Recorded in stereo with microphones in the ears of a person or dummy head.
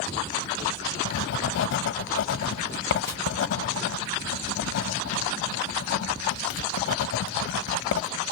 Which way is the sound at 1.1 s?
65° left (ahead or behind).